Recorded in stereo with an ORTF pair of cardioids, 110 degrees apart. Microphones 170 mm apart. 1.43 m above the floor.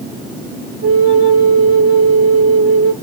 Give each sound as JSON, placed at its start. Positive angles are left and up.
{"t": 0.8, "sound": "a flute", "azimuth_deg": -70, "distance_m": 1.2}